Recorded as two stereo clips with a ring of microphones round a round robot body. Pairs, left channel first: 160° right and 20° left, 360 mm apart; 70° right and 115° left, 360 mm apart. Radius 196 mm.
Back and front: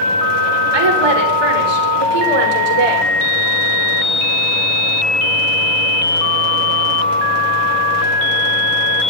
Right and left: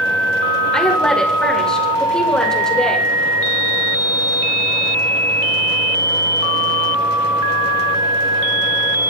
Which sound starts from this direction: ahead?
A woman speaking, at 0.7 s.